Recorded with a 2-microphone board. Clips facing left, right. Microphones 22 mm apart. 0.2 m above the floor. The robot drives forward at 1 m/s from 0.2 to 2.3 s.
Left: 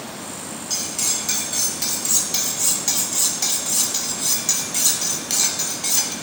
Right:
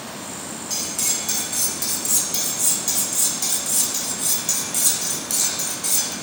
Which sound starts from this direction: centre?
Cutlery clinking, at 0.7 s.